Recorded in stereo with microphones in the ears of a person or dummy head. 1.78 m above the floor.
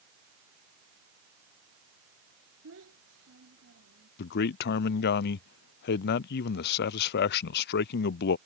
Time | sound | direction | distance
2.6 | a child speaking | 70° right (ahead or behind) | ?
4.2 | a man speaking | 55° left (ahead or behind) | ?